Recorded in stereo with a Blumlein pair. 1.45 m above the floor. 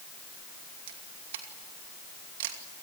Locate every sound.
0.9 s a camera shutter: 55° right, 2.5 m